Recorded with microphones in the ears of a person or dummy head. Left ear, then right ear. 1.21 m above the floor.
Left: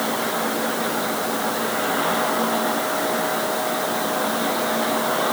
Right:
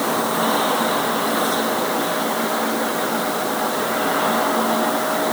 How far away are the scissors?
No scissors in this recording.